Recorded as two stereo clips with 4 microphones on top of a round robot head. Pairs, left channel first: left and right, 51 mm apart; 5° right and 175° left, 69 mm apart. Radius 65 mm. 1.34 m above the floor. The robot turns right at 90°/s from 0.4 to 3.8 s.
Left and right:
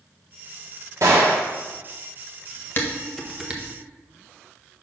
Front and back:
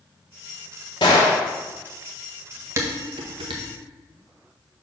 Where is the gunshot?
35° right, 1.1 m; by 1.4 s straight ahead, 1.1 m.